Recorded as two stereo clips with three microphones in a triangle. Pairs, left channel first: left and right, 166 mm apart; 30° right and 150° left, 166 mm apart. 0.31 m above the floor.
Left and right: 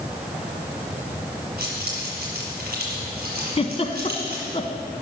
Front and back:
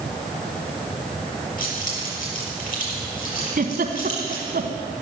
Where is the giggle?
135° left, 1.0 m.